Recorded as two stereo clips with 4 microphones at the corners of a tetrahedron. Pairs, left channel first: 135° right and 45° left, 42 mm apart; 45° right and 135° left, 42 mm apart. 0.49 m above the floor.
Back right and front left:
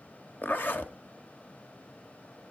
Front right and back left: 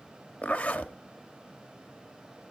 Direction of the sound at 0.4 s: 105° right.